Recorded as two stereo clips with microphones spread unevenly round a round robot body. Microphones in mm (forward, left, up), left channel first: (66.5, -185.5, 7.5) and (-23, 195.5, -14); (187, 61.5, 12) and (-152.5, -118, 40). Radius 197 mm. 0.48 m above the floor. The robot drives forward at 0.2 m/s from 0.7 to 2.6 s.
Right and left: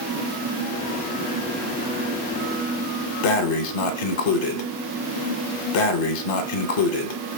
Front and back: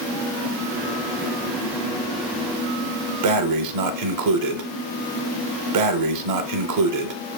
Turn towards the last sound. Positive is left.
turn(degrees=-105)